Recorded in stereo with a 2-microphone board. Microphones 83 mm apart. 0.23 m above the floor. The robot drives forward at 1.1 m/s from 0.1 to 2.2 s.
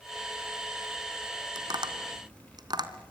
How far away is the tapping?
About 2.5 m.